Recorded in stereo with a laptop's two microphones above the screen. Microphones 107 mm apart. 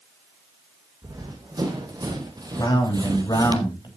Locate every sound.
1.0 s running footsteps: 35° right (ahead or behind), 3.5 m; by 3.6 s 40° right (ahead or behind), 1.5 m
2.6 s a man speaking: 40° left (ahead or behind), 3 m